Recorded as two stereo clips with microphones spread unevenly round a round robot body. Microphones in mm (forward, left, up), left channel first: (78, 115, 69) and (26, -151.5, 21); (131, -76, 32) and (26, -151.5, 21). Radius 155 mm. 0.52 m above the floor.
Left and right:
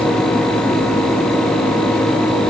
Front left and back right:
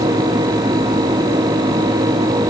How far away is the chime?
I don't hear a chime.